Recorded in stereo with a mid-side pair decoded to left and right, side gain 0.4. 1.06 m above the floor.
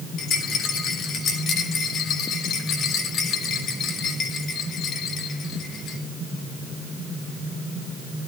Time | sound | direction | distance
0.2 | a rattle | 70° left | 5 m